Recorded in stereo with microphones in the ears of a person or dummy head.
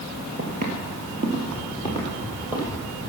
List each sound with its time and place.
0.4 s footsteps: 40° right (ahead or behind), 1.6 m; by 2.7 s 5° right (ahead or behind), 2.5 m